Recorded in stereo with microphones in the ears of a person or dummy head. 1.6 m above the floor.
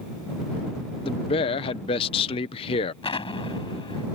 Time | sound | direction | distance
1.0 | a man speaking | 35° left (ahead or behind) | ?
3.0 | an explosion | 25° left (ahead or behind) | ?